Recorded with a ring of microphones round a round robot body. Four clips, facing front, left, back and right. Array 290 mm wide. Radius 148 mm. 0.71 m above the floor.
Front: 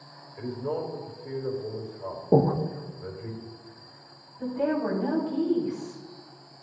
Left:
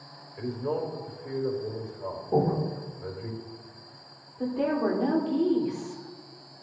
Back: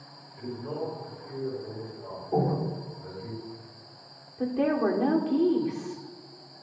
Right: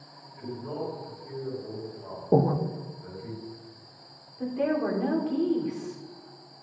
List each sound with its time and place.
0.4 s a man speaking: 60° left, 3.5 m
2.3 s breathing: 35° right, 0.8 m
4.4 s a woman speaking: 170° left, 2.5 m